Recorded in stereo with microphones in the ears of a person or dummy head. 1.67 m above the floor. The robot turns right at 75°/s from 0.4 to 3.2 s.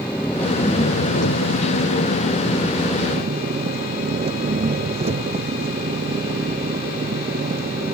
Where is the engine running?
5° left; by 8.0 s 145° right.